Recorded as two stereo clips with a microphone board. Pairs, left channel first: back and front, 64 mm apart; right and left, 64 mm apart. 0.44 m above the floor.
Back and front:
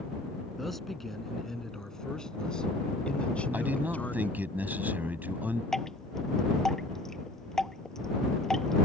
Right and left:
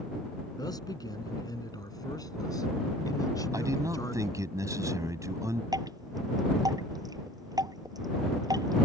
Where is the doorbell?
I don't hear a doorbell.